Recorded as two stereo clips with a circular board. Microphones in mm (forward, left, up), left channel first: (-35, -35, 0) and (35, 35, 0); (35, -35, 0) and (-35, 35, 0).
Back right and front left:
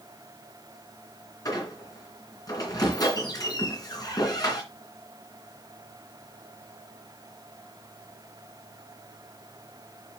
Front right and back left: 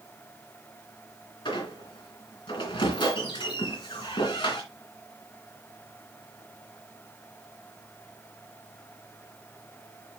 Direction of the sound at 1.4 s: 85° right.